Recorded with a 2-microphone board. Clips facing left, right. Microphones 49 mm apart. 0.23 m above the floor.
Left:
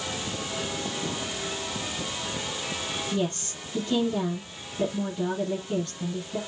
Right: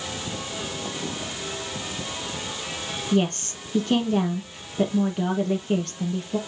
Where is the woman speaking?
55° right (ahead or behind), 5.5 m.